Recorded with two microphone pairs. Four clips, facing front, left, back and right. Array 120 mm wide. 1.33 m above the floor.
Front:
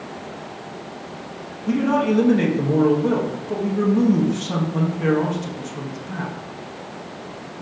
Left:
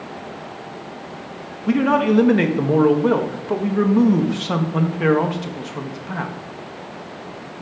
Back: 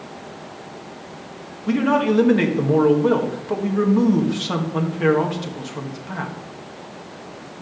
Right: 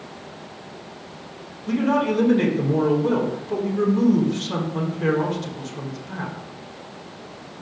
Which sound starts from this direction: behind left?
A man speaking, at 1.7 s.